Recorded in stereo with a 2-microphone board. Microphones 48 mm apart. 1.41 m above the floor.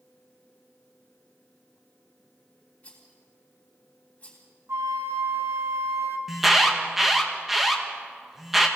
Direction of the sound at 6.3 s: 5° right (ahead or behind).